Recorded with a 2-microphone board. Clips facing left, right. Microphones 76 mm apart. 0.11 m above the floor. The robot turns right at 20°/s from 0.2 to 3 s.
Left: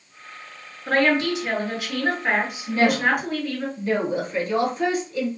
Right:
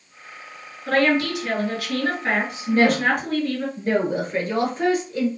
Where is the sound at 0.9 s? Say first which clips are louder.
Even; 125° left, 1.6 m; by 3.7 s 170° left, 1.6 m.